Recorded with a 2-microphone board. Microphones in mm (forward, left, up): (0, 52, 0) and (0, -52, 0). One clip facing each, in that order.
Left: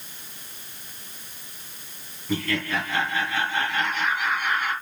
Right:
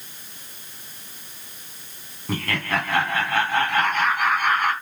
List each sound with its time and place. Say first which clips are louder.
2.3 s laughter: right 1 dB; 55° right (ahead or behind), 2 m